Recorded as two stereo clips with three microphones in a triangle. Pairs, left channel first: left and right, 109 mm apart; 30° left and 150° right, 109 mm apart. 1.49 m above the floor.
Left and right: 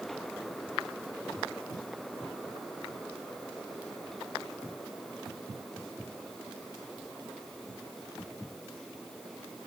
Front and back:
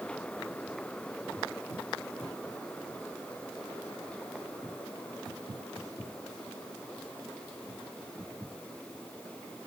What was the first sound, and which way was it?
Only background noise.